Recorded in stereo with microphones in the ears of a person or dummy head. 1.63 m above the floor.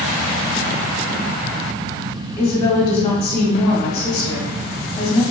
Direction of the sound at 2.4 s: 20° left (ahead or behind).